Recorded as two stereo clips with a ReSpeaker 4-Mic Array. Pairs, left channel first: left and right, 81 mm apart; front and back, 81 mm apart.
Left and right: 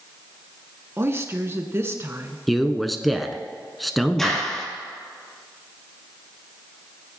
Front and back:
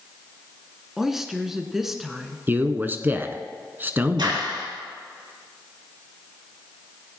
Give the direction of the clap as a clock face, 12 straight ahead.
6 o'clock.